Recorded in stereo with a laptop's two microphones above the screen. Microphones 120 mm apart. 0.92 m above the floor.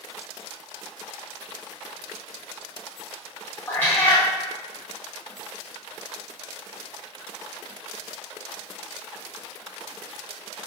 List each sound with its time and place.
3.7 s a cat meowing: 15° left (ahead or behind), 0.8 m